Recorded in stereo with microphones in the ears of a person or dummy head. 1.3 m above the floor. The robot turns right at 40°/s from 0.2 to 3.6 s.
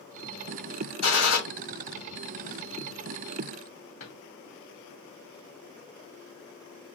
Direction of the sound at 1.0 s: 75° left (ahead or behind).